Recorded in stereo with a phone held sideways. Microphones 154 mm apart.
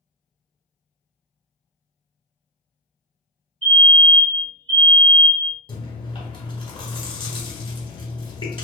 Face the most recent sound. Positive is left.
turn(degrees=35)  # may be behind; listen again after turning